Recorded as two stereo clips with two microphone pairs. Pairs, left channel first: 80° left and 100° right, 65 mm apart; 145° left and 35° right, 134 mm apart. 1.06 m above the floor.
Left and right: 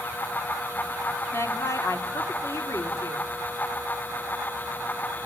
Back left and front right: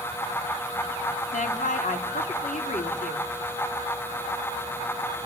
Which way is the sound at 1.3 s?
130° left.